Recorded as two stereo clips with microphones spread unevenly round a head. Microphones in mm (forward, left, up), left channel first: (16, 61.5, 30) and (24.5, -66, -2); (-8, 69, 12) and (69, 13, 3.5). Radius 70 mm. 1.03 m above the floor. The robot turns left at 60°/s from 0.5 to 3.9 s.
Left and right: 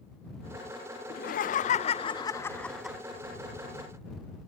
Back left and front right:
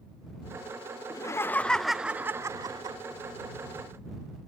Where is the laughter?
95° left; by 3.0 s 15° right.